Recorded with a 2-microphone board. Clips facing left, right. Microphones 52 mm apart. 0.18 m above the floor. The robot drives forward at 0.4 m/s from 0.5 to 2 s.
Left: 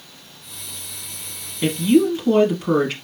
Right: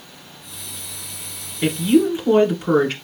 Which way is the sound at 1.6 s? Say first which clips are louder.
Even; centre (ahead or behind).